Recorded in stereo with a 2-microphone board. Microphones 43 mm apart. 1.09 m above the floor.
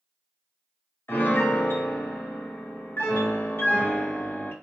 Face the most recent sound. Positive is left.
turn(degrees=60)  # may be behind; listen again after turning